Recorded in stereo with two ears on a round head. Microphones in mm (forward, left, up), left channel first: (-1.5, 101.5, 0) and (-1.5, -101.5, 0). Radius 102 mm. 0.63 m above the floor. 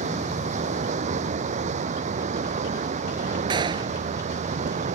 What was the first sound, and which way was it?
Running water, 35° right (ahead or behind).